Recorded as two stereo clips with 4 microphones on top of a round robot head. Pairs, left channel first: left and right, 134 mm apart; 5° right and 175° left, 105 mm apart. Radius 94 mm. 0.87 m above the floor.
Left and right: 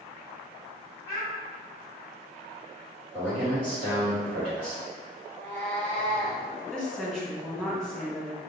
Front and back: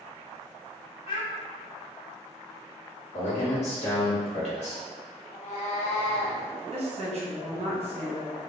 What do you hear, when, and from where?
1.1 s a child speaking: 20° left, 0.6 m
3.1 s a man speaking: 10° right, 1.5 m
5.3 s a cat meowing: 5° left, 0.7 m
6.7 s a woman speaking: 175° left, 1.1 m